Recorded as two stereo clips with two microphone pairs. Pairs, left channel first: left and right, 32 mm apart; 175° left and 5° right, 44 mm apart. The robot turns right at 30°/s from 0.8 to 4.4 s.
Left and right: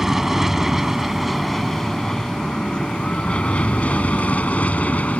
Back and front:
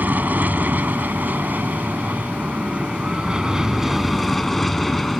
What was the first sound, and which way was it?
An aircraft, 15° right.